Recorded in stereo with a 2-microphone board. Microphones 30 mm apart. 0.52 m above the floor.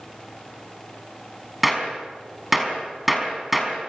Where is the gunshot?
Centre (ahead or behind), 5 m.